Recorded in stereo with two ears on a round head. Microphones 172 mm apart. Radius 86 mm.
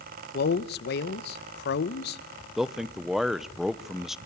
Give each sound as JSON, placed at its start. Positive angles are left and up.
{"t": 0.3, "sound": "a man speaking", "side_deg": 55, "distance_m": 0.9}
{"t": 2.6, "sound": "a man speaking", "side_deg": 0, "distance_m": 0.6}